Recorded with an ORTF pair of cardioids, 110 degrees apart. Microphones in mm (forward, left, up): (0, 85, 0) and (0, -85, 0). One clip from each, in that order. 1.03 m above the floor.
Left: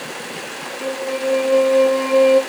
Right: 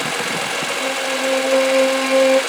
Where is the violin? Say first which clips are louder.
Left 2 dB; 20° right, 1.5 m.